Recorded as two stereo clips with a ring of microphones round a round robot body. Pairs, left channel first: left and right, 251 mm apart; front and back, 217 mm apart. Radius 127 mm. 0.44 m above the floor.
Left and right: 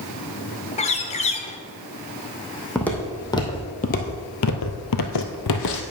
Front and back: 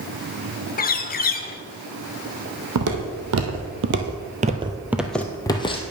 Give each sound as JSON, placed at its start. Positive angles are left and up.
{"t": 0.8, "sound": "a bird", "azimuth_deg": 35, "distance_m": 0.8}
{"t": 2.8, "sound": "footsteps", "azimuth_deg": 175, "distance_m": 1.6}